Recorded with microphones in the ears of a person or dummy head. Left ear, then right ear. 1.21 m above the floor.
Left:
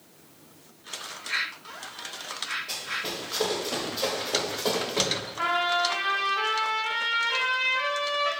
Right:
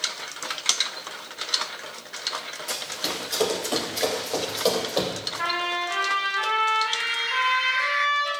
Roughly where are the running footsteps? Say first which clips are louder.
Right 2 dB; right.